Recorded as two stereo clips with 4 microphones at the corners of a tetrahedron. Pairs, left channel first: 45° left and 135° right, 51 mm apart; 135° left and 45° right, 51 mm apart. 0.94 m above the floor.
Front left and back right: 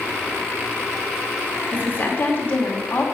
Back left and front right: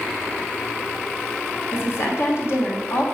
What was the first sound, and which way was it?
A woman speaking, 105° left.